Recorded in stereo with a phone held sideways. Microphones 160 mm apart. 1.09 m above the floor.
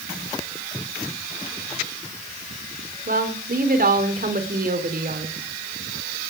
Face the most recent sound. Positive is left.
turn(degrees=-65)  # may be behind; listen again after turning